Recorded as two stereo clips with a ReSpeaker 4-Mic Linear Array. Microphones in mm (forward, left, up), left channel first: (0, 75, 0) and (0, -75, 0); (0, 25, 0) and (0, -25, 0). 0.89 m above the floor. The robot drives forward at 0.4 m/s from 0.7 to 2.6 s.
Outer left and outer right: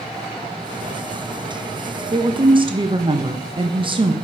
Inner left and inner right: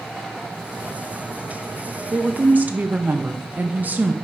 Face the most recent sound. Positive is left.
turn(degrees=-35)  # may be behind; listen again after turning